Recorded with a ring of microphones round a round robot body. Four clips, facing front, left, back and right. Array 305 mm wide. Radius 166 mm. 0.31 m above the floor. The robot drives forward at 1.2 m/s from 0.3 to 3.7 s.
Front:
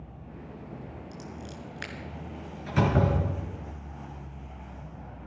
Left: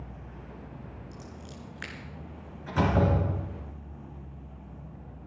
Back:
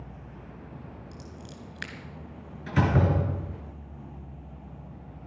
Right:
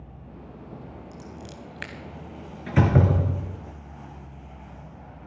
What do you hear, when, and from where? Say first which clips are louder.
1.1 s scissors: right 4 dB, front 3 dB; 80° right, 2.5 m; by 1.9 s 100° right, 2.5 m
2.7 s a door slam: right 3 dB, even; 100° right, 4 m; by 3.6 s 115° right, 4 m